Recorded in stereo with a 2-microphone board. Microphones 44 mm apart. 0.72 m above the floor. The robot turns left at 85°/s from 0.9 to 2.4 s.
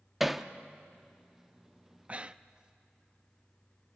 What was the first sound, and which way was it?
Hammering, 5° right (ahead or behind).